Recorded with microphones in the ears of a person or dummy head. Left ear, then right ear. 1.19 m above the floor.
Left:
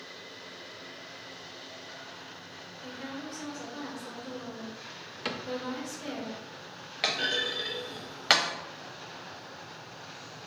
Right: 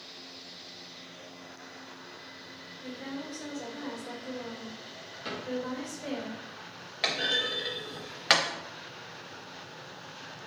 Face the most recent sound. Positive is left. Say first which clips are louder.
# even
turn(degrees=0)  # may be behind; listen again after turning